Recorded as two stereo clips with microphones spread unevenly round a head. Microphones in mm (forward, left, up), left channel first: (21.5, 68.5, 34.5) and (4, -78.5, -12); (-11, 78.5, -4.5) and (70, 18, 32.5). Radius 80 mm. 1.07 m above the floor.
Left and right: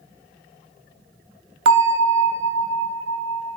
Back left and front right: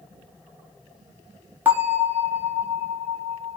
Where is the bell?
95° right, 0.6 m.